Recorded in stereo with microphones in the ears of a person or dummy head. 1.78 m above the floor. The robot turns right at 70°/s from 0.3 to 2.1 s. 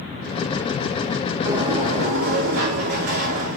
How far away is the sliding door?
About 1.9 m.